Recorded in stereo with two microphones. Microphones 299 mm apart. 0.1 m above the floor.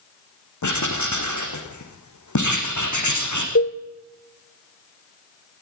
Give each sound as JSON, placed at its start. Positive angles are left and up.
{"t": 0.6, "sound": "writing", "side_deg": 70, "distance_m": 5.0}
{"t": 3.5, "sound": "a cowbell", "side_deg": 50, "distance_m": 1.1}